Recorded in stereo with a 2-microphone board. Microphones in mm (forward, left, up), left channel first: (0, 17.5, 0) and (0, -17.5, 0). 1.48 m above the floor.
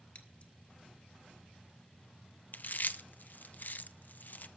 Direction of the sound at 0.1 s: 40° left (ahead or behind).